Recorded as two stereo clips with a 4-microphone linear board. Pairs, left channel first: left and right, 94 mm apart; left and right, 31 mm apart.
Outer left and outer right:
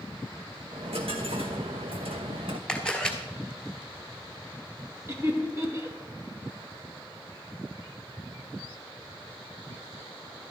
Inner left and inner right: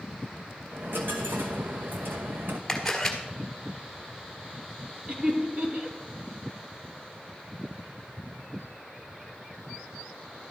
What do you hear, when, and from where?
0.7 s a dropped coin: 80° right, 1.1 m
2.7 s a camera shutter: 10° left (ahead or behind), 1.5 m
5.1 s laughter: 30° right (ahead or behind), 2.5 m